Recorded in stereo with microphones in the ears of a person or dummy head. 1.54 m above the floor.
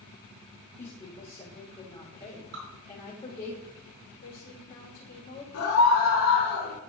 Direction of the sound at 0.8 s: 30° left (ahead or behind).